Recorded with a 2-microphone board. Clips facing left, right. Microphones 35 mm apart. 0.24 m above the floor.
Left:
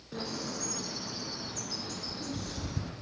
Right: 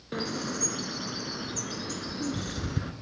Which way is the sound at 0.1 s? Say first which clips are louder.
Right 5 dB; 65° right (ahead or behind).